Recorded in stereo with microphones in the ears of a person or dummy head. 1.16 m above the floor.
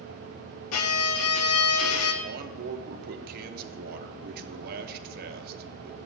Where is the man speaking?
55° right (ahead or behind), 0.8 m.